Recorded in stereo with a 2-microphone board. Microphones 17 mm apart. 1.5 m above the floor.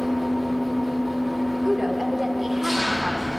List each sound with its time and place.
0.0 s an engine running: 5° right (ahead or behind), 0.9 m
1.6 s a woman speaking: 20° right (ahead or behind), 1.1 m